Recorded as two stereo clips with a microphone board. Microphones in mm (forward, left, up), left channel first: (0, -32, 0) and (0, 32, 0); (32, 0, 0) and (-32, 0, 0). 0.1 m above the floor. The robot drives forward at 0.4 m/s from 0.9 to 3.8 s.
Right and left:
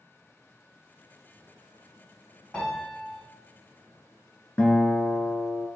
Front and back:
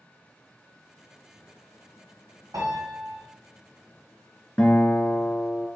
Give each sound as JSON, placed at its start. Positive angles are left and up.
{"t": 2.5, "sound": "a piano", "azimuth_deg": -165, "distance_m": 1.9}
{"t": 4.6, "sound": "a guitar", "azimuth_deg": -55, "distance_m": 1.1}